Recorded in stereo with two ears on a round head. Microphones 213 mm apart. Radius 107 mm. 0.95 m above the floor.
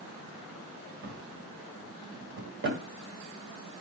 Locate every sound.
1.0 s a drawer: 50° right (ahead or behind), 2 m